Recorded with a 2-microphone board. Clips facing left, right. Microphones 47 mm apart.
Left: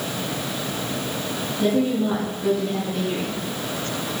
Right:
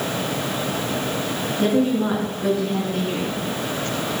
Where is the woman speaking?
50° right (ahead or behind), 6.5 m.